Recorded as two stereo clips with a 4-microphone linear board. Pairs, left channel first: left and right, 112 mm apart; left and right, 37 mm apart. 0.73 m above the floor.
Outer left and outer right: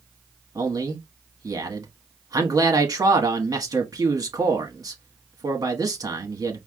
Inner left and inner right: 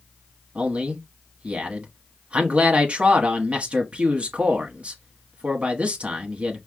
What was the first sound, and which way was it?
A man speaking, 30° right (ahead or behind).